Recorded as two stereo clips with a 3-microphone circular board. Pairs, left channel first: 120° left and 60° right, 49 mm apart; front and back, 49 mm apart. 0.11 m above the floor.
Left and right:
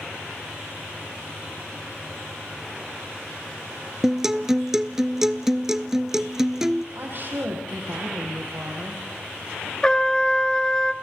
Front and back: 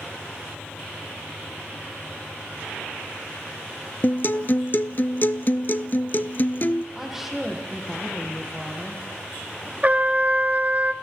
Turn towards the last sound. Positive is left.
turn(degrees=-175)